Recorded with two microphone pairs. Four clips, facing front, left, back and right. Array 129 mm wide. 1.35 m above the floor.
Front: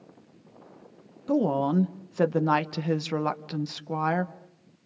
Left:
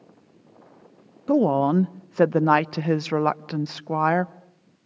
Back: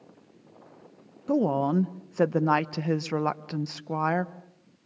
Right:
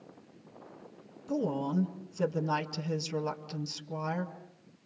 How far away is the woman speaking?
About 0.8 m.